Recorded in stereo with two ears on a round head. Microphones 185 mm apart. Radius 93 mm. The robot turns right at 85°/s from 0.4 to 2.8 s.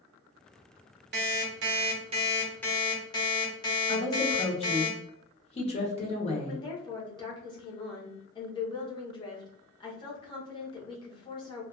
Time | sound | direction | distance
1.1 | an alarm clock | 120° right | 0.8 m
3.9 | a woman speaking | 30° left (ahead or behind) | 0.8 m
6.5 | a woman speaking | 25° left (ahead or behind) | 0.8 m